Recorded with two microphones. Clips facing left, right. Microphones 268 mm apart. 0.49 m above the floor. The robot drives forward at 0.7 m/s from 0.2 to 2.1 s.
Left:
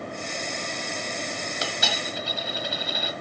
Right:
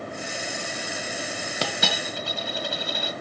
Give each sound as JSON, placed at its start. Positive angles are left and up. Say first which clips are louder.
{"t": 1.6, "sound": "a dropped coin", "louder": "right 4 dB", "side_deg": -70, "distance_m": 1.1}